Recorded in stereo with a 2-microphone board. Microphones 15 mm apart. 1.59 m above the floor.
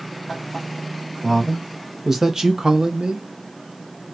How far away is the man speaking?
About 1.2 m.